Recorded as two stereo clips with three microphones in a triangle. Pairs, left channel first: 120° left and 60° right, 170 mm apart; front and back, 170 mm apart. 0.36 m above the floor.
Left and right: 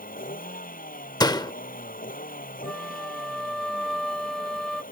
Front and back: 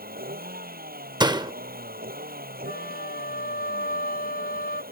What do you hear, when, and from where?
0.0 s a vehicle: 155° left
1.2 s a door slam: 150° left
2.6 s a flute: 30° left